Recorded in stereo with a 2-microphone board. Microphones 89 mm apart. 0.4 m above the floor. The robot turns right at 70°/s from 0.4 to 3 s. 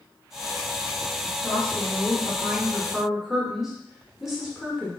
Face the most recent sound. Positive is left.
turn(degrees=-5)  # may be behind; listen again after turning